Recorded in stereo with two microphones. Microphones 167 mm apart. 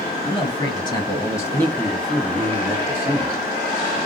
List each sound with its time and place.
0.2 s a man speaking: 35° left (ahead or behind), 1.6 m; by 4.0 s 30° right (ahead or behind), 1.6 m